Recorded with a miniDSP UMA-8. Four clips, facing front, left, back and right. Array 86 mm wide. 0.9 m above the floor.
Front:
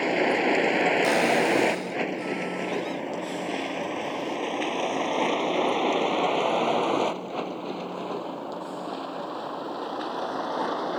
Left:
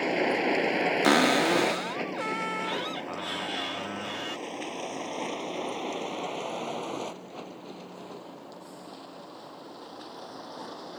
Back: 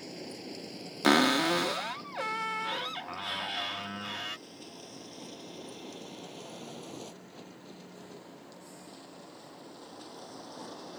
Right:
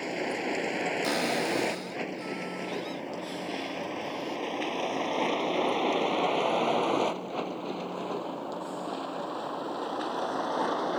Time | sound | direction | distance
0.0 | a vehicle | 25° left | ?
1.0 | a cupboard door | 125° left | ?